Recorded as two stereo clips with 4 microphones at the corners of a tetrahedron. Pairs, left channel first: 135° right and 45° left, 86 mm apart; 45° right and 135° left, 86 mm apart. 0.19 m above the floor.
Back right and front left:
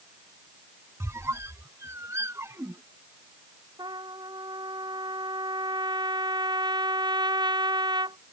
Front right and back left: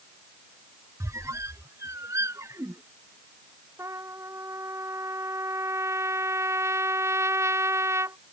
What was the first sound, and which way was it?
A squeak, 95° left.